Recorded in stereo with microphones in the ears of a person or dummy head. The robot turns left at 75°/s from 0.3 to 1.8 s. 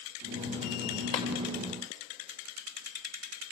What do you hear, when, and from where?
1.1 s tapping: 25° left (ahead or behind), 1.9 m; by 1.3 s 20° left (ahead or behind), 1.9 m